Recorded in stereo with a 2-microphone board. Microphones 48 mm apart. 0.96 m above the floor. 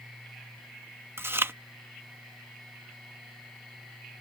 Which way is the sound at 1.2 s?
55° right (ahead or behind).